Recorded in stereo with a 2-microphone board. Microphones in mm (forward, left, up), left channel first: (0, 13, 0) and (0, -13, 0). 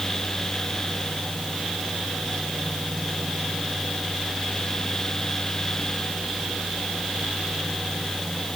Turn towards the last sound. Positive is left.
No sound to turn to.